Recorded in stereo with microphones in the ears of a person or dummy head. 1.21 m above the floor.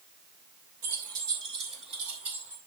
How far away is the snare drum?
I don't hear a snare drum.